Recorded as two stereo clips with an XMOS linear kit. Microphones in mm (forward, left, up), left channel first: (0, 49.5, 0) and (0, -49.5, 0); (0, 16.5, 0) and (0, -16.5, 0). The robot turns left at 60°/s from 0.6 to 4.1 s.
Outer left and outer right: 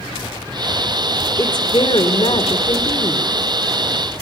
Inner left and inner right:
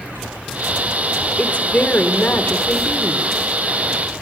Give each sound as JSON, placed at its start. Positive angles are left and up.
{"t": 1.4, "sound": "a woman speaking", "azimuth_deg": 140, "distance_m": 2.5}